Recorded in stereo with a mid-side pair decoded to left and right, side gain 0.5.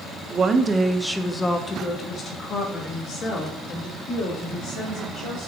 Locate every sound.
0.3 s a woman speaking: 40° right, 0.8 m; by 5.5 s 75° left, 3 m